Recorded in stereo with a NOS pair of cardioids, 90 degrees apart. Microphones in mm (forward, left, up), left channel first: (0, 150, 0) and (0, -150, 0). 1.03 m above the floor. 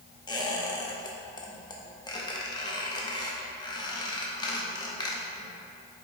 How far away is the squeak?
About 0.8 m.